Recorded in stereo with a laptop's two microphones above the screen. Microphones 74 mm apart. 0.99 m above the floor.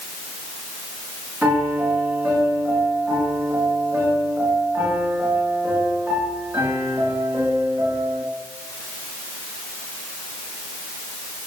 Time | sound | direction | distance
1.4 | a piano | 25° right (ahead or behind) | 3 m